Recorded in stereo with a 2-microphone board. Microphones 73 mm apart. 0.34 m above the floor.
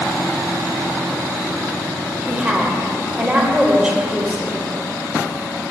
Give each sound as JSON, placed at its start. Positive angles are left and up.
{"t": 2.3, "sound": "a woman speaking", "side_deg": -15, "distance_m": 1.2}